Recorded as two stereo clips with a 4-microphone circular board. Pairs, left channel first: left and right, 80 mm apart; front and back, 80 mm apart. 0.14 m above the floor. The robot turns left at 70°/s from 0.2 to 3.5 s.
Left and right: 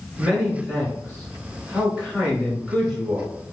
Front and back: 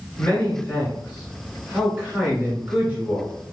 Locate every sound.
0.2 s a man speaking: 5° right, 1.8 m; by 3.3 s 140° left, 1.8 m